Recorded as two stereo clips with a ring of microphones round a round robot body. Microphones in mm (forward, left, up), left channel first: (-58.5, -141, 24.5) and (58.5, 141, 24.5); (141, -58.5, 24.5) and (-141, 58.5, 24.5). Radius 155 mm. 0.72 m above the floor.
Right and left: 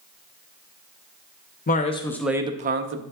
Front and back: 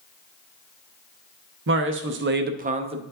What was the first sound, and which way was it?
A man speaking, 165° right.